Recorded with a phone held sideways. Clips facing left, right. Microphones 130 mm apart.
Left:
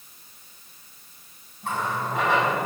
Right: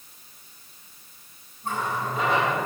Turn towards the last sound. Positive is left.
turn(degrees=80)